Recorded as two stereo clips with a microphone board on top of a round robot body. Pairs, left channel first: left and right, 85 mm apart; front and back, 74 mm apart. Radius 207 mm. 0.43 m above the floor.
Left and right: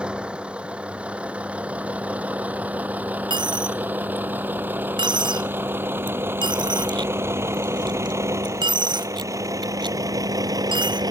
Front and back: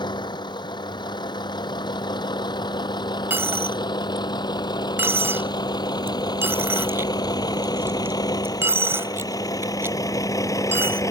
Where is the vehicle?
10° right; by 11.1 s 45° right.